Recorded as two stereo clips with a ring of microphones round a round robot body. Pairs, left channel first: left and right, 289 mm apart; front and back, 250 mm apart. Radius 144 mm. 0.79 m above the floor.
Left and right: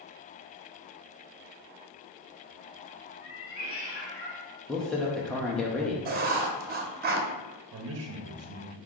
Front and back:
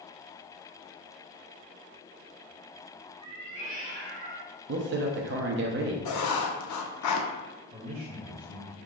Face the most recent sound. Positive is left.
turn(degrees=-115)